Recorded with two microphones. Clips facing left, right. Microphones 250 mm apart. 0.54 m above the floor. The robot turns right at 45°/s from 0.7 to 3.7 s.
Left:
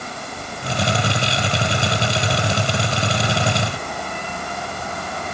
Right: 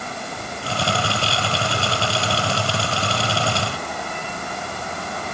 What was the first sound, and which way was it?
Only background noise.